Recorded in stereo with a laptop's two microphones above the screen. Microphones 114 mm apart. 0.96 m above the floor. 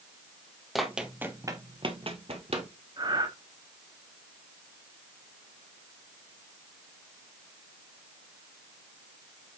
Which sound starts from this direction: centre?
Running footsteps, at 0.8 s.